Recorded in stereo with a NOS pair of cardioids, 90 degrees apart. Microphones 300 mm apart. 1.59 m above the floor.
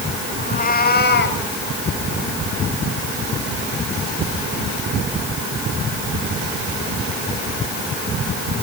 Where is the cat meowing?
30° left, 5 m; by 1.4 s 40° left, 5.5 m.